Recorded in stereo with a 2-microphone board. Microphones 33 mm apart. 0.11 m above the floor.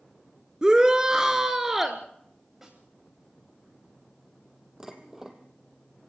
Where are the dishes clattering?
15° right (ahead or behind), 2.5 m.